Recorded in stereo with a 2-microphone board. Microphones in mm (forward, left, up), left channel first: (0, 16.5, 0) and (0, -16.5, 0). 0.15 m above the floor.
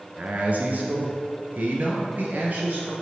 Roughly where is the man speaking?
Right.